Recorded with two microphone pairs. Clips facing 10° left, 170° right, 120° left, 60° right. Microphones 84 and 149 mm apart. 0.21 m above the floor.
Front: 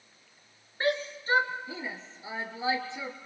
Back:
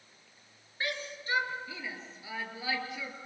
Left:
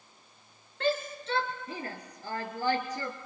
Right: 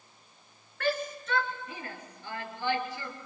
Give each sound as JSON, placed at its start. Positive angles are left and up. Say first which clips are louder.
{"t": 0.8, "sound": "a shout", "louder": "front 8 dB, left 1 dB", "azimuth_deg": 55, "distance_m": 3.0}